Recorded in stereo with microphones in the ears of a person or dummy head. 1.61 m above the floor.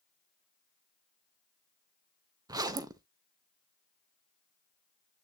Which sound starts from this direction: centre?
A zipper, at 2.5 s.